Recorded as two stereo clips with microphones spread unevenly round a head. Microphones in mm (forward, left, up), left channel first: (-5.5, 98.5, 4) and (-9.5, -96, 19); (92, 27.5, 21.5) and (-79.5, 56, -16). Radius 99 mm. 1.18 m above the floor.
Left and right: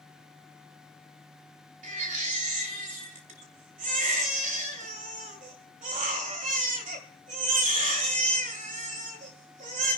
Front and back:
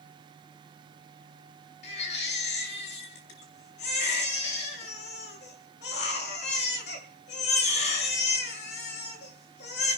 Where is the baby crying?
40° right, 2.5 m.